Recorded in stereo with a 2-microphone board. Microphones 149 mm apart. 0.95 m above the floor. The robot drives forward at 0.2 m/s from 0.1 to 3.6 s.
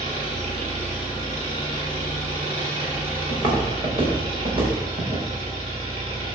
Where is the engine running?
45° right (ahead or behind), 5.5 m; by 6.3 s 40° right (ahead or behind), 6 m.